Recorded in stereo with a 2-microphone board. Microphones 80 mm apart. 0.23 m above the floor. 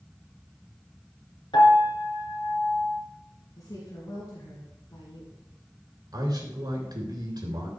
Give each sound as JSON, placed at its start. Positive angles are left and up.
{"t": 1.5, "sound": "a piano", "side_deg": 70, "distance_m": 2.5}
{"t": 3.6, "sound": "a woman speaking", "side_deg": 55, "distance_m": 3.0}
{"t": 6.1, "sound": "a man speaking", "side_deg": -55, "distance_m": 3.5}